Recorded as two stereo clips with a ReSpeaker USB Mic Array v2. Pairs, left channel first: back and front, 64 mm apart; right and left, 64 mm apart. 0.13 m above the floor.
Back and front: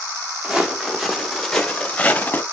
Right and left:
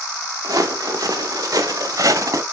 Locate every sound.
0.4 s footsteps: 80° left, 2 m; by 2.4 s 120° left, 1.5 m